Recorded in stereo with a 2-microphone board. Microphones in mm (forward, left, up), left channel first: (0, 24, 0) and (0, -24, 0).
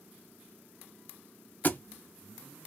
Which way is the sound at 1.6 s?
35° left (ahead or behind).